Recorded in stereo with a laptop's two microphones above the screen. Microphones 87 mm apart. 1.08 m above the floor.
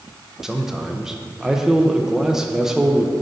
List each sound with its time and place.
0.4 s a man speaking: 5° right (ahead or behind), 0.6 m